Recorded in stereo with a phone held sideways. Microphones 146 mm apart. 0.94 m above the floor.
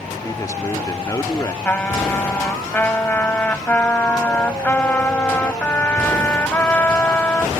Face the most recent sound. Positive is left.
turn(degrees=15)  # may be behind; listen again after turning